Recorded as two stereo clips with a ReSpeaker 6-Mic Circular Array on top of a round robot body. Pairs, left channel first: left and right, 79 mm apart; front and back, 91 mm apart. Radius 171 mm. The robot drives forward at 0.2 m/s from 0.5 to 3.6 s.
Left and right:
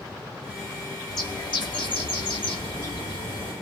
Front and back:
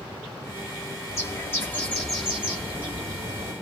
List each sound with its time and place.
1.1 s a bird: 55° left, 0.5 m; by 3.5 s 130° left, 0.5 m